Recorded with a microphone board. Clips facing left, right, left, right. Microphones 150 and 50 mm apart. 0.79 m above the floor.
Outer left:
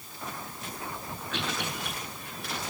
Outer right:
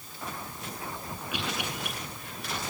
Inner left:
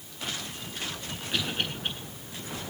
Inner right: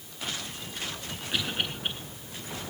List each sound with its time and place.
1.3 s a cough: 10° right (ahead or behind), 8 m